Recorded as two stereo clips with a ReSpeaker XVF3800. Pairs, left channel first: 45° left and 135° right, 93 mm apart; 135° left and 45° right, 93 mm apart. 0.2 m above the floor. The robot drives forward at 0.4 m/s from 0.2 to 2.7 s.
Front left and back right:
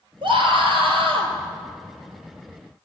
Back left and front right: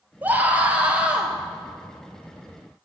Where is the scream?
115° right, 3 m; by 1.3 s 125° right, 3 m.